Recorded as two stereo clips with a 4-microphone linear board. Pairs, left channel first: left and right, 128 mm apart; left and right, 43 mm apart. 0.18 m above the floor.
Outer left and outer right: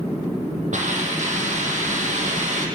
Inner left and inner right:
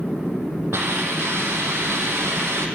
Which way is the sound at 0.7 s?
75° right (ahead or behind).